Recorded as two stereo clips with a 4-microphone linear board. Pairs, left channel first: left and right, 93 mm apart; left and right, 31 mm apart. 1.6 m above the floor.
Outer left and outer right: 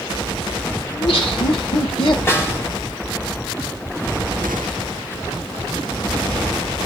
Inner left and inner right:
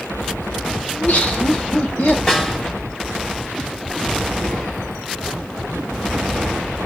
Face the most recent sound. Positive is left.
turn(degrees=30)  # may be behind; listen again after turning